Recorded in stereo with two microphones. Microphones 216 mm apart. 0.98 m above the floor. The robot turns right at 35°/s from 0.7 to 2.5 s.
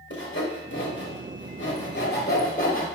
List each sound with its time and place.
0.1 s sawing: 60° left (ahead or behind), 1.0 m; by 2.9 s 40° left (ahead or behind), 1.0 m